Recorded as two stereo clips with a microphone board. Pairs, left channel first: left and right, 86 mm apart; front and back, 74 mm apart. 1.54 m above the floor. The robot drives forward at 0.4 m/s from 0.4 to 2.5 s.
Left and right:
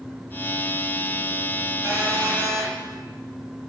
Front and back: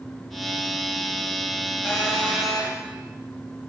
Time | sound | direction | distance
1.8 | a phone buzzing | 45° right | 1.8 m